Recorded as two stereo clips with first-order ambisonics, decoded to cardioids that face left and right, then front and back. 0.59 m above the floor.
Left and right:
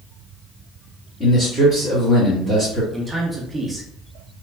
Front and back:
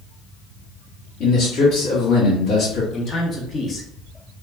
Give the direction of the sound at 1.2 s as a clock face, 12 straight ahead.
11 o'clock.